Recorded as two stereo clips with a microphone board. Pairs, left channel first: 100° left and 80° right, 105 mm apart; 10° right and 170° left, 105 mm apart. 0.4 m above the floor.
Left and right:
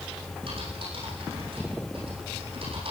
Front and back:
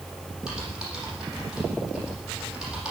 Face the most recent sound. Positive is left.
turn(degrees=-105)